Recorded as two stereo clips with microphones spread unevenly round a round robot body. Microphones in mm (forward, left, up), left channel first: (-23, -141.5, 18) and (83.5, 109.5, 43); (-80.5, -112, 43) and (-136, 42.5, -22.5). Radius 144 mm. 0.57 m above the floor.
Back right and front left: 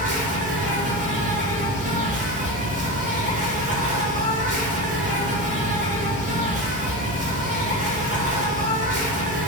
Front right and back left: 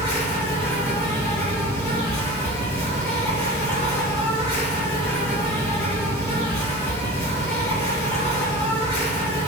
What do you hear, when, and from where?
0.0 s an insect: 50° left, 0.8 m